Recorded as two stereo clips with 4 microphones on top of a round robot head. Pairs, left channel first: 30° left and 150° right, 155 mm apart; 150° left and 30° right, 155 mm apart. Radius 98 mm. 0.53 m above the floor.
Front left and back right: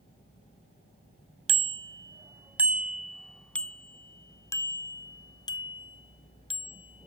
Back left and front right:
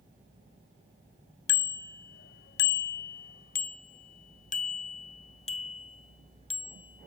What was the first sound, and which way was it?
A bicycle bell, 155° left.